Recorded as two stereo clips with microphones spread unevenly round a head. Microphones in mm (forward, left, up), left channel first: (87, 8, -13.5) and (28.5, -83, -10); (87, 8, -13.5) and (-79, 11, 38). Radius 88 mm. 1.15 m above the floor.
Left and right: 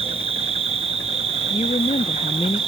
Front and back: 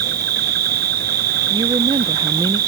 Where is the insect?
160° right, 0.7 m.